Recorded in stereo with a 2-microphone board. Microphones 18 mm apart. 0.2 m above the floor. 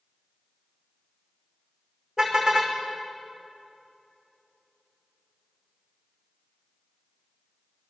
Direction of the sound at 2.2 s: 55° right (ahead or behind).